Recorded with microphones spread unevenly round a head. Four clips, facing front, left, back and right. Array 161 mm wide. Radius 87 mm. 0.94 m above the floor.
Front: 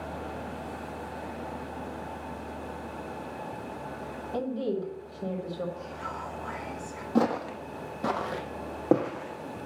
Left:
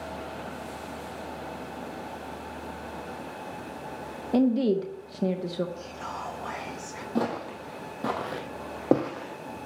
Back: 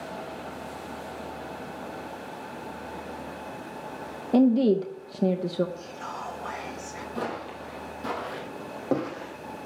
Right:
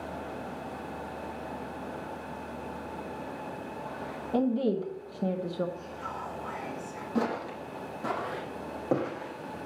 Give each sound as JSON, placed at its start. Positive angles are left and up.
{"t": 4.3, "sound": "a woman speaking", "azimuth_deg": 165, "distance_m": 0.9}
{"t": 5.8, "sound": "whispering", "azimuth_deg": 110, "distance_m": 1.6}
{"t": 7.2, "sound": "footsteps", "azimuth_deg": 30, "distance_m": 2.0}